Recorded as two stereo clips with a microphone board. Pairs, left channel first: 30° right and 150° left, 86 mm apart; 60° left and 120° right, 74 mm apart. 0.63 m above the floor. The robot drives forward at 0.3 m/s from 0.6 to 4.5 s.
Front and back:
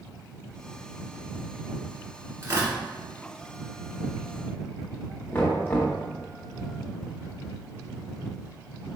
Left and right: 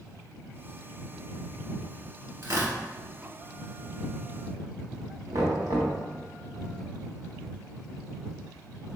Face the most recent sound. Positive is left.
turn(degrees=-90)